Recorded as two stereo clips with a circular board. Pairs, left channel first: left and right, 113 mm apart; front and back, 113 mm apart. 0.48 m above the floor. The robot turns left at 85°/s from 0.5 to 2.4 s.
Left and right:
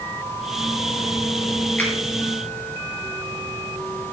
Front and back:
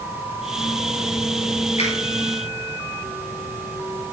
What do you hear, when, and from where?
1.8 s a finger snap: 15° left, 6.5 m; by 1.9 s 5° left, 6.5 m